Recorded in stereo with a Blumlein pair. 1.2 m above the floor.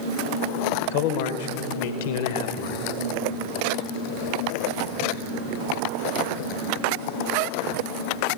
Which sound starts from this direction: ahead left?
A man speaking, at 0.9 s.